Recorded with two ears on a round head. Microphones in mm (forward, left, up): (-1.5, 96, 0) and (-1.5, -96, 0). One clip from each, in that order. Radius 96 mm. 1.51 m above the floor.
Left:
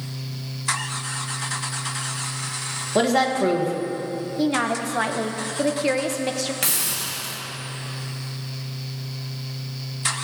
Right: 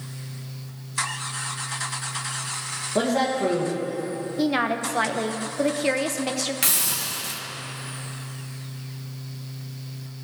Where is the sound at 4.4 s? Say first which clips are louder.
Even; 10° right (ahead or behind), 0.5 m.